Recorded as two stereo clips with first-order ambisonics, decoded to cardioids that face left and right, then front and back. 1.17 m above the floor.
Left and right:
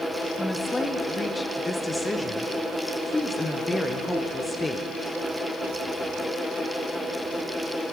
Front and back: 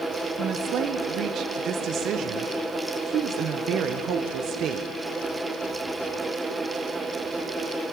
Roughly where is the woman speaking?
Behind.